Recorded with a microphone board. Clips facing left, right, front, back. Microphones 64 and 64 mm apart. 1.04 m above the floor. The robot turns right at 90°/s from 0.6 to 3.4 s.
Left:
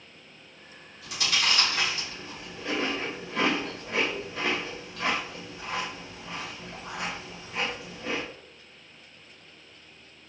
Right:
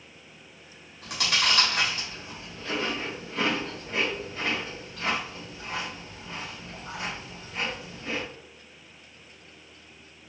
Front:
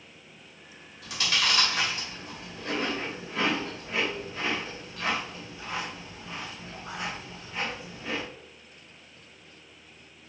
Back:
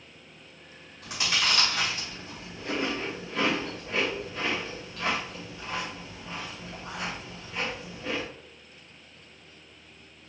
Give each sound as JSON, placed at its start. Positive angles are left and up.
{"t": 1.0, "sound": "chewing", "azimuth_deg": -125, "distance_m": 2.5}